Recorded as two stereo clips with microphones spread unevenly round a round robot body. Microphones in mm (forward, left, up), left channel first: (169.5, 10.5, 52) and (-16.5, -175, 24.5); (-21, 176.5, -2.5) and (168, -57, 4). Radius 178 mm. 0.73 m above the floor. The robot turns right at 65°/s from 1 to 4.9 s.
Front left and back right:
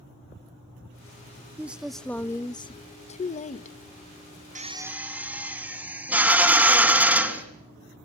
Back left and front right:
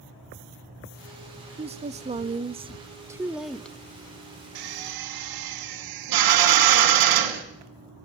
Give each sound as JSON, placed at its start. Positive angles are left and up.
{"t": 1.6, "sound": "a woman speaking", "azimuth_deg": -85, "distance_m": 0.7}
{"t": 4.5, "sound": "a drill", "azimuth_deg": -70, "distance_m": 3.0}